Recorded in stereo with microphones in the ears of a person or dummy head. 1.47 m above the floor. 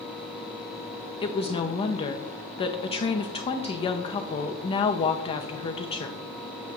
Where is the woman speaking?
30° left (ahead or behind), 0.7 m.